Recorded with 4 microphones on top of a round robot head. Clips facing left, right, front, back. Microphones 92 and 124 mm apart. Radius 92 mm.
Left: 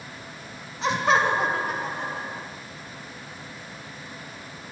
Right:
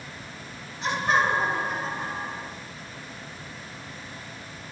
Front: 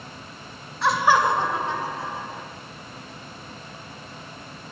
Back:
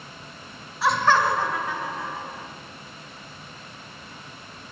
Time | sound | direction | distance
0.8 | laughter | 95° left | 0.6 m